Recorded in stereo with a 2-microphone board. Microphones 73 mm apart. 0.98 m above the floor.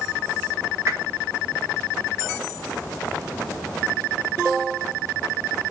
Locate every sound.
0.9 s a whoosh: 35° right (ahead or behind), 1.0 m